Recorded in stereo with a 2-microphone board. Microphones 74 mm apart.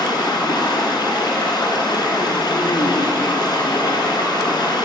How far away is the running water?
About 1.2 m.